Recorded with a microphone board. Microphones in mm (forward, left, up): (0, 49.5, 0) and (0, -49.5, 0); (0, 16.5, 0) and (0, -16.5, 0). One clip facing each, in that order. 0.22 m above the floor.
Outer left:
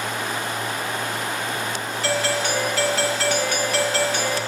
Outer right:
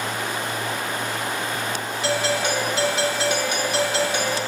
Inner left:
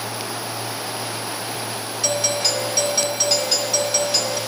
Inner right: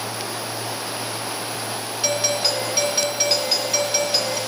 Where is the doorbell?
20° right (ahead or behind), 1.6 m.